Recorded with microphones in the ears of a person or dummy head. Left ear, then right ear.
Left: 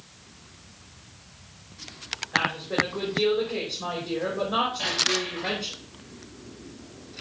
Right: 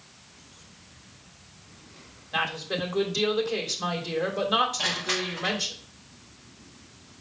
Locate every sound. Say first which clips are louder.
2.3 s a woman speaking: left 3 dB; 75° right (ahead or behind), 2.5 m
4.8 s crushing: left 2 dB; 20° right (ahead or behind), 1.6 m